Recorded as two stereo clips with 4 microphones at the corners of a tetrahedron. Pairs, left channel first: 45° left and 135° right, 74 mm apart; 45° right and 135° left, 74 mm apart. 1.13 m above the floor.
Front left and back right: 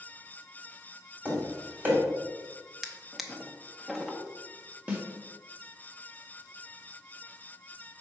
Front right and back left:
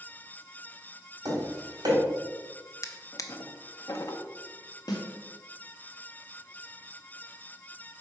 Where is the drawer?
50° right, 0.6 m.